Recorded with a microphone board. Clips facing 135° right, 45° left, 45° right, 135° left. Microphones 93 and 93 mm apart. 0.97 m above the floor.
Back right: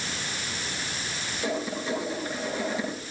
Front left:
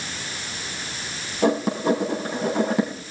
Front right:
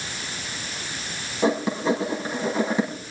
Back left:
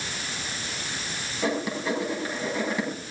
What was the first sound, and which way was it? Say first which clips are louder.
Writing: front left 10 dB, front right 5 dB; 20° left.